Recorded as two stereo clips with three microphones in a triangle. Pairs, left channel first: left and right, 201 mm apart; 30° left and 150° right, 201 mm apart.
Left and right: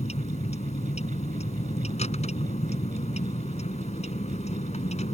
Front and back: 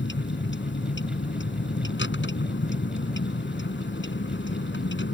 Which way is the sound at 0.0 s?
35° left.